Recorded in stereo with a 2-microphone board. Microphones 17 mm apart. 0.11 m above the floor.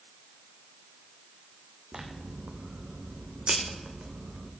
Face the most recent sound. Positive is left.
turn(degrees=-80)